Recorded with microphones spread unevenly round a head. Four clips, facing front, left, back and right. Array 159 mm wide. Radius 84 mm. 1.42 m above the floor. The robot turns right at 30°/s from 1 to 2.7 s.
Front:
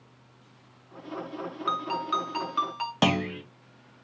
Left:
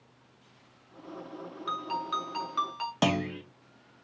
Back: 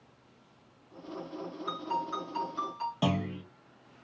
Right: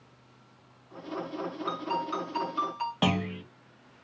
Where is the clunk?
35° left, 0.6 m.